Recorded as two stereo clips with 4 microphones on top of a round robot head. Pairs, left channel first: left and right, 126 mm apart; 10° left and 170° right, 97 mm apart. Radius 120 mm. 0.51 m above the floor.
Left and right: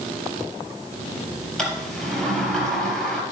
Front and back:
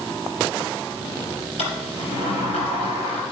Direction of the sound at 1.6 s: 5° left.